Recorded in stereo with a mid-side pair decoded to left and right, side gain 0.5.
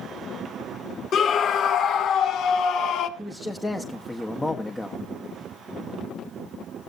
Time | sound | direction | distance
1.1 | a scream | 55° left | 2.5 m
3.2 | a man speaking | 20° left | 1.5 m